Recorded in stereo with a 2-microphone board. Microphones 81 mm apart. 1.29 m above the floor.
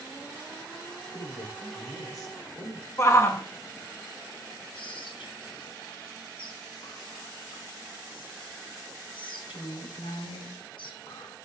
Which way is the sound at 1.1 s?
50° left (ahead or behind).